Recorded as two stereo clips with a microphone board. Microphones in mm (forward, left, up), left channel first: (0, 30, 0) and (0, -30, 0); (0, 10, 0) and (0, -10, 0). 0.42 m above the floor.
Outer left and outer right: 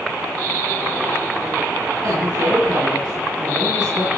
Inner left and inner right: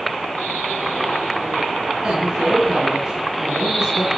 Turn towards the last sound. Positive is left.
turn(degrees=-70)  # may be behind; listen again after turning